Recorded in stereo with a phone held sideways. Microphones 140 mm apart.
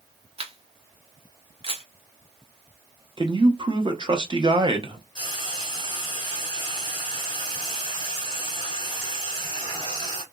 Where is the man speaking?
35° right (ahead or behind), 0.7 m.